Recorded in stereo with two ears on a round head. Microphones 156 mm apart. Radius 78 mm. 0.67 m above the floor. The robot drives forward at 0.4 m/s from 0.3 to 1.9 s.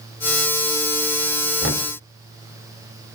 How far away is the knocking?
About 2 m.